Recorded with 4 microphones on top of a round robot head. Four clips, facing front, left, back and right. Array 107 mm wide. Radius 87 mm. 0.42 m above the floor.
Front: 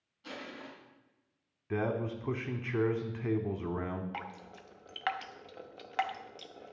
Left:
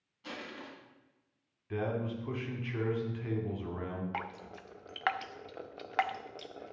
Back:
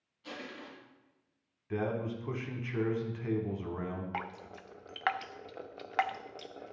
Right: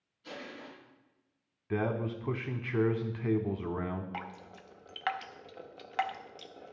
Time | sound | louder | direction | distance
0.2 | crushing | even, even | 80° left | 3.5 m
1.7 | a man speaking | right 2 dB, front 1 dB | 55° right | 0.9 m
4.1 | dripping | left 2 dB, back 3 dB | 135° left | 0.6 m